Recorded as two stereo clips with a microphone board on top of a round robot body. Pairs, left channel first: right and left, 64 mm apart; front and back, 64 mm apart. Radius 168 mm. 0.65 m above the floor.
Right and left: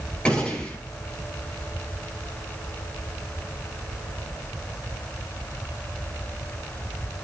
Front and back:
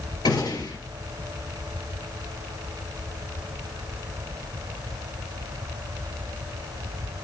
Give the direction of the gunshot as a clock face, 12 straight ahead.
12 o'clock.